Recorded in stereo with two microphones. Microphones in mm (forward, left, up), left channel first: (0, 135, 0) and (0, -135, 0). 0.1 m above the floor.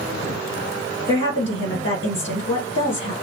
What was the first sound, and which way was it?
A woman speaking, 25° left (ahead or behind).